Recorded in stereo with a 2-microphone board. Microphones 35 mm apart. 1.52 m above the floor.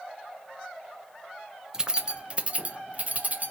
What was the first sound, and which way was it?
Keys jangling, 20° right (ahead or behind).